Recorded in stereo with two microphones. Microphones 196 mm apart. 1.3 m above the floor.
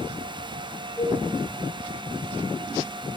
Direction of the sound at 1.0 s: 15° left (ahead or behind).